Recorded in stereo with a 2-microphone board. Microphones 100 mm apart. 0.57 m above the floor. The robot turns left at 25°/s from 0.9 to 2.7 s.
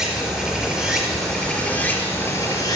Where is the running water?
175° right, 3.5 m; by 2.8 s 140° left, 3.5 m.